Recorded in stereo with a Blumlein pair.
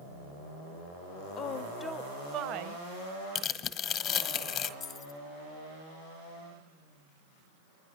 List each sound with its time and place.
1.4 s a woman speaking: 30° left, 0.8 m; by 2.8 s 55° right, 0.8 m
3.4 s tearing paper: 30° left, 1.1 m
4.8 s keys jangling: 30° left, 1.2 m